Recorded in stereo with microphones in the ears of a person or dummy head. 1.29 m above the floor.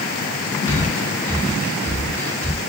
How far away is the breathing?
About 2 m.